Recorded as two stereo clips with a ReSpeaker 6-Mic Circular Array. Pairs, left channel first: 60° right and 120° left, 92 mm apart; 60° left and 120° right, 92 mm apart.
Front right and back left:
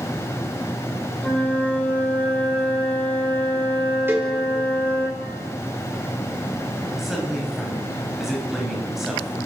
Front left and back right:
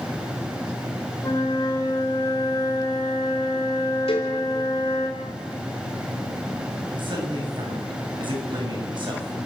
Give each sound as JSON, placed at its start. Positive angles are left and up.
{"t": 1.2, "sound": "a flute", "azimuth_deg": 15, "distance_m": 5.5}
{"t": 4.1, "sound": "a cowbell", "azimuth_deg": 50, "distance_m": 4.5}
{"t": 7.0, "sound": "a man speaking", "azimuth_deg": -155, "distance_m": 7.0}